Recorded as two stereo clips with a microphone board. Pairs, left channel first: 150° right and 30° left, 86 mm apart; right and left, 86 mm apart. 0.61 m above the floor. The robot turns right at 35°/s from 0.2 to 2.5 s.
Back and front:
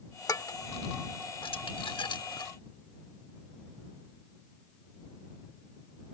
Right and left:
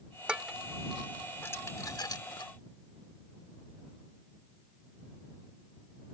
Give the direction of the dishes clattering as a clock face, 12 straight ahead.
6 o'clock.